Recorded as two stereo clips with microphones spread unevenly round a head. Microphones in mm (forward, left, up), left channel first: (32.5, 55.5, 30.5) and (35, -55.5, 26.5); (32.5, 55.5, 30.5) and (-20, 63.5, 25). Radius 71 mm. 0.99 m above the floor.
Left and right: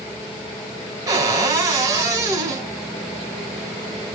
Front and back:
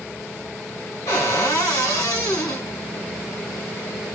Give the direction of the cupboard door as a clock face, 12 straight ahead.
1 o'clock.